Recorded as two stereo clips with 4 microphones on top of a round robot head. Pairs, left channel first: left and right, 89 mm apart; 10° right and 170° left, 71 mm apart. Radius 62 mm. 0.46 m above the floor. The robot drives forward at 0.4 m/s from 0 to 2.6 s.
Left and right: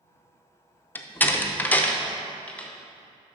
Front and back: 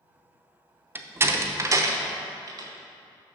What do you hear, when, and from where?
0.9 s a door slam: 140° left, 0.7 m; by 2.7 s 165° left, 1.1 m